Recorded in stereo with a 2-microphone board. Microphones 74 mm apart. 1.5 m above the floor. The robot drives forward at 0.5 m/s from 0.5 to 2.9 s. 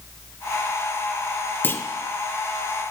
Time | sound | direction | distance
1.6 | a clunk | 25° left (ahead or behind) | 0.7 m